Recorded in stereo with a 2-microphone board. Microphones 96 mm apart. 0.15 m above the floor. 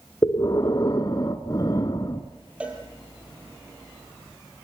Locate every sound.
0.2 s breathing: 45° left (ahead or behind), 1.2 m
2.6 s a cowbell: 10° right (ahead or behind), 3.5 m